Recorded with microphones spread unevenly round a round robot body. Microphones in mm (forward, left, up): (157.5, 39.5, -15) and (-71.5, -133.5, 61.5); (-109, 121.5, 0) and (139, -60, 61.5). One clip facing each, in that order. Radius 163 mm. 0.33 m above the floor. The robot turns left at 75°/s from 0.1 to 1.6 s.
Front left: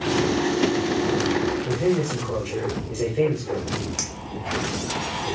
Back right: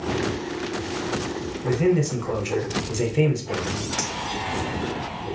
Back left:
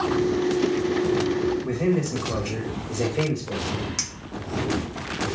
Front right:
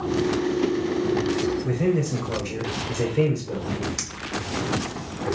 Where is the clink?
70° left, 0.8 m.